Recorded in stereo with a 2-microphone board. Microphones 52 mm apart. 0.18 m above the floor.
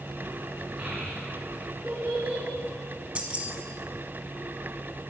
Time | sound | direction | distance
0.8 | a child speaking | 15° right (ahead or behind) | 1.5 m
3.1 | keys jangling | 25° right (ahead or behind) | 0.8 m